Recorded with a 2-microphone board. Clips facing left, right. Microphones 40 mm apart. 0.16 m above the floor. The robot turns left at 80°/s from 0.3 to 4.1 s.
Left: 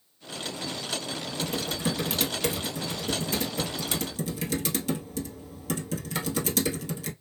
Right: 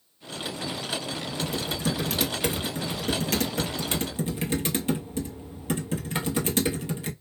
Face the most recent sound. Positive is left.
turn(degrees=-30)  # may be behind; listen again after turning